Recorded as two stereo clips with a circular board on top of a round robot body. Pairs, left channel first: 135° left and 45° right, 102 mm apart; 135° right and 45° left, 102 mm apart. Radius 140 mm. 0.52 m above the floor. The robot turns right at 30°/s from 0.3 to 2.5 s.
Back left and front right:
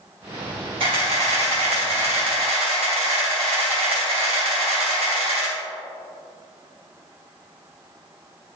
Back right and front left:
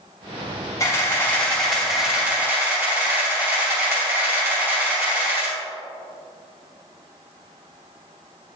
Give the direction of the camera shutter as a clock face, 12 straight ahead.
2 o'clock.